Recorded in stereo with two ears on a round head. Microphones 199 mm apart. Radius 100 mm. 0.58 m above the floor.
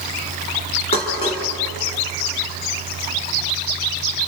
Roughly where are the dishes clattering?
Left.